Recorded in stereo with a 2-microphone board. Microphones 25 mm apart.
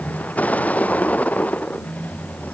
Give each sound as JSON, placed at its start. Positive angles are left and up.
{"t": 0.0, "sound": "a vehicle", "side_deg": 75}